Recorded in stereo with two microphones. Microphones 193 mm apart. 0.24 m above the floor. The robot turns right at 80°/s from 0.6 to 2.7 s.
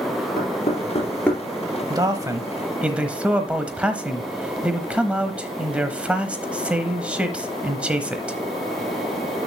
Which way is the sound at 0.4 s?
60° left (ahead or behind).